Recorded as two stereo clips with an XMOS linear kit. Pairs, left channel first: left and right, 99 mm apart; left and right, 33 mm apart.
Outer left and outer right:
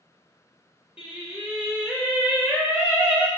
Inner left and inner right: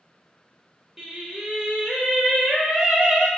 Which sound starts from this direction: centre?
Singing, at 1.0 s.